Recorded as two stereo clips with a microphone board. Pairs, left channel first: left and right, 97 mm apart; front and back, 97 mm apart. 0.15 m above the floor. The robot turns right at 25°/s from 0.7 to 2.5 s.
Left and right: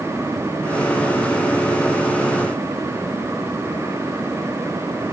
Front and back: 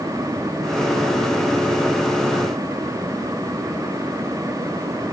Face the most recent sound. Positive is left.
No sound to turn to.